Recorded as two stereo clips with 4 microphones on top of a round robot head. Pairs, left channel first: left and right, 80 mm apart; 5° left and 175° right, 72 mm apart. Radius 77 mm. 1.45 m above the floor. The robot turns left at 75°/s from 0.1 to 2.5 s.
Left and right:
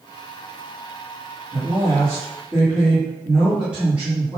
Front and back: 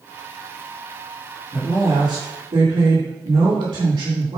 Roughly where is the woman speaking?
Right.